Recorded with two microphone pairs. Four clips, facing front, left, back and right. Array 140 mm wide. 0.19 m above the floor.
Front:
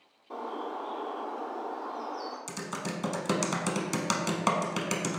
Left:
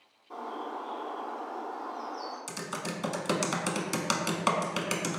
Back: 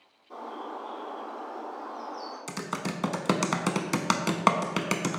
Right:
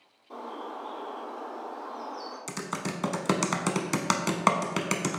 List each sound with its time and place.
0.3 s a bird: 15° right, 1.7 m
2.5 s typing on a keyboard: 150° right, 0.5 m